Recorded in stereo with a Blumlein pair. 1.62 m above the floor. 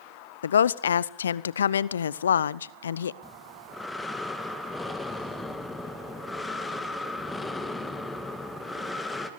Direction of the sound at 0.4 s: 65° left.